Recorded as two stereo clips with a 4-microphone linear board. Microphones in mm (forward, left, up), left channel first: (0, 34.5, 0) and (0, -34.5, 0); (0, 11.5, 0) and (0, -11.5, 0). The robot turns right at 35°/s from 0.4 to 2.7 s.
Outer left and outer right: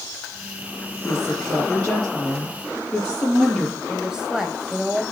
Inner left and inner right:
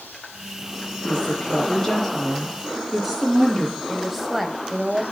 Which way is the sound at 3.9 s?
10° right (ahead or behind).